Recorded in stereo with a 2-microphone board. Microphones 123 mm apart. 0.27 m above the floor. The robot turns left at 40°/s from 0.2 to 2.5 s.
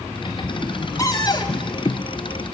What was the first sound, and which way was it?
A cupboard door, 25° left (ahead or behind).